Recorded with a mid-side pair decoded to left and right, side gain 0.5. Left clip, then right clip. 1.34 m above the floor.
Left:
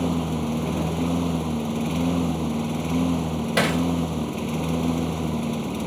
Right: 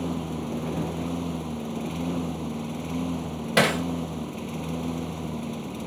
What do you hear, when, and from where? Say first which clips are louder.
0.0 s a lawn mower: left 5 dB; 35° left
3.6 s hammering: right 1 dB; 15° right